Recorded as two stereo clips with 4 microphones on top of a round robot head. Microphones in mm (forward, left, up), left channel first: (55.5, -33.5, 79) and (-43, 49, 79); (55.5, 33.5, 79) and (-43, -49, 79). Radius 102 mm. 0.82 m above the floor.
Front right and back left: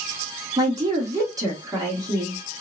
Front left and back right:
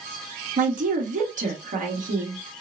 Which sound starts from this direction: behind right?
A woman speaking, at 0.6 s.